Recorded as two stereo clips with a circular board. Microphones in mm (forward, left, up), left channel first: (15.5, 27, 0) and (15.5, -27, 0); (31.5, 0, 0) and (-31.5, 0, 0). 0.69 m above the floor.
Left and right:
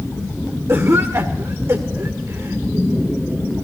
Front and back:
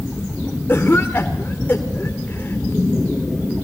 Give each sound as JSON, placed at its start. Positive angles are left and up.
{"t": 0.7, "sound": "a cough", "azimuth_deg": -55, "distance_m": 1.7}